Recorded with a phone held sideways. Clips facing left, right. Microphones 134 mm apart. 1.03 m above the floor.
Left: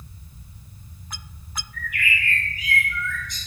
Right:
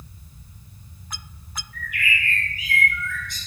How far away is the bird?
About 1.4 m.